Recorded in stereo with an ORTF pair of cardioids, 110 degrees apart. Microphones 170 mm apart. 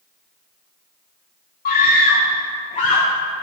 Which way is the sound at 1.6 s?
55° left.